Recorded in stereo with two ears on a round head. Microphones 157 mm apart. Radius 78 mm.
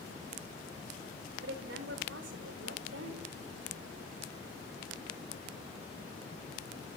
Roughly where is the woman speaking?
Right.